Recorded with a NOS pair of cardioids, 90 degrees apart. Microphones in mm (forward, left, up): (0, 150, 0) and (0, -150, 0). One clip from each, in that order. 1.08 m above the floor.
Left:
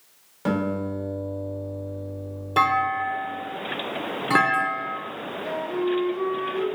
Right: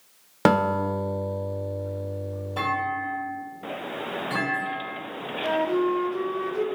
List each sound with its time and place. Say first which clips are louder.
0.5 s a guitar: right 6 dB; 70° right, 0.5 m
2.6 s a clunk: left 6 dB; 70° left, 0.7 m
5.4 s a flute: right 4 dB; 45° right, 0.5 m